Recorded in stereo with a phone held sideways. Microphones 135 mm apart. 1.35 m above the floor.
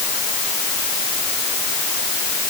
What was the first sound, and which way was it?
Only background noise.